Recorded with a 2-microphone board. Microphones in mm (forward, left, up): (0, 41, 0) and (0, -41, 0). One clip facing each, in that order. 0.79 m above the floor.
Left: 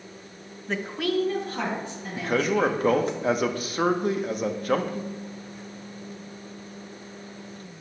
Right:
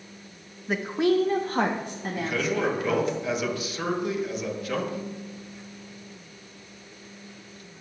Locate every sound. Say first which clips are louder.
0.7 s a woman speaking: right 4 dB; 5° right (ahead or behind), 0.5 m; by 3.1 s 70° right (ahead or behind), 1.4 m
2.1 s a man speaking: left 4 dB; 45° left (ahead or behind), 0.8 m